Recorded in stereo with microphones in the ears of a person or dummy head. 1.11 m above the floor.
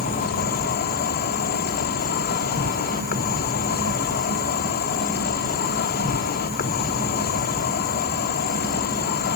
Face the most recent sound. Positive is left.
turn(degrees=50)  # may be behind; listen again after turning